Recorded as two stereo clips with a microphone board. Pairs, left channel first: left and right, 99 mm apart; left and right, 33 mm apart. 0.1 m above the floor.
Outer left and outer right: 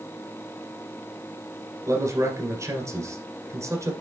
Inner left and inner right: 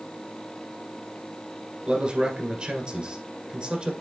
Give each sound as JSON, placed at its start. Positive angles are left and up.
{"t": 1.9, "sound": "a man speaking", "side_deg": -30, "distance_m": 1.8}